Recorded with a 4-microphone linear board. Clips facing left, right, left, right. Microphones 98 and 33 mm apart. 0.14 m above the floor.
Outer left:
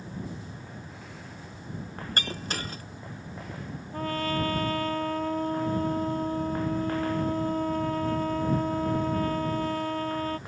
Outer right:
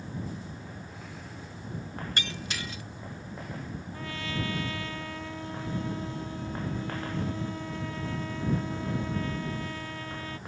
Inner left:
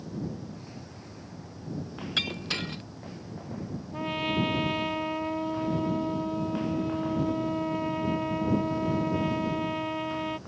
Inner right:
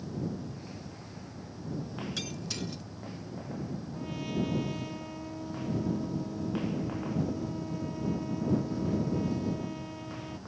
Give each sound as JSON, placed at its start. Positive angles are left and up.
{"t": 2.2, "sound": "breaking glass", "side_deg": 45}
{"t": 3.9, "sound": "a trumpet", "side_deg": 50}